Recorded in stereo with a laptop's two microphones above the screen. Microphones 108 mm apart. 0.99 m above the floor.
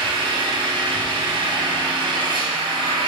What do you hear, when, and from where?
0.0 s an engine running: 45° right (ahead or behind), 3.5 m